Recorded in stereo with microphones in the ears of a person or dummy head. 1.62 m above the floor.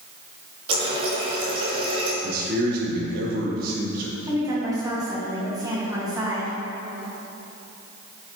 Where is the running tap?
35° right (ahead or behind), 1.4 m.